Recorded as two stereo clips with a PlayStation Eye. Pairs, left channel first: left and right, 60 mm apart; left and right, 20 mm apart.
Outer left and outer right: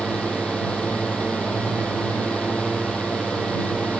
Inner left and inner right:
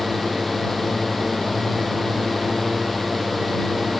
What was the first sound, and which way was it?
A drone, 20° left (ahead or behind).